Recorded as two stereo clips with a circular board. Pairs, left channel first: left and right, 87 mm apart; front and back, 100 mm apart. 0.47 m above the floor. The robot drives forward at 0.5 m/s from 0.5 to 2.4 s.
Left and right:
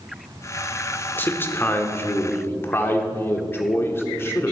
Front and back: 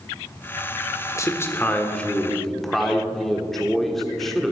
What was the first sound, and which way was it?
A man speaking, 40° left.